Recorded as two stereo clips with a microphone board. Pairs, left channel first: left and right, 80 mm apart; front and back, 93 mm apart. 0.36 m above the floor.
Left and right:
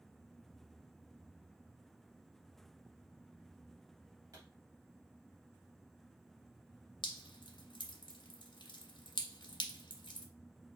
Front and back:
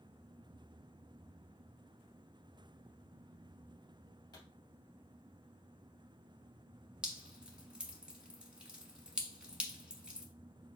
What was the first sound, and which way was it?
A pop, 40° right.